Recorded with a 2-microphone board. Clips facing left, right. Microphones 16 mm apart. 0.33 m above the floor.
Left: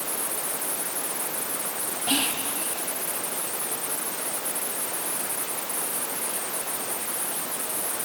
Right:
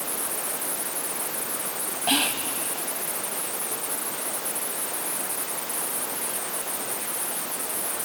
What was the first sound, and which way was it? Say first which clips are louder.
Whispering: right 2 dB; 30° right (ahead or behind).